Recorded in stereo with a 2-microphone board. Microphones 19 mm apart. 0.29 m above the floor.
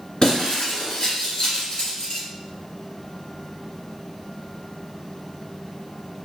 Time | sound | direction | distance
0.2 | breaking glass | 40° left (ahead or behind) | 2 m